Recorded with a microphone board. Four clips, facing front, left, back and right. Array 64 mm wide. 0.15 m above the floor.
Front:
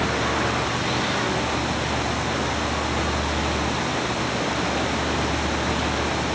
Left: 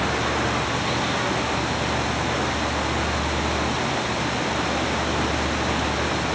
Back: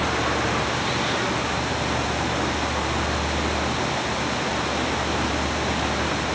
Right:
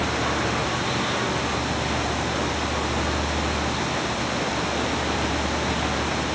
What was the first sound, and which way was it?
Only background noise.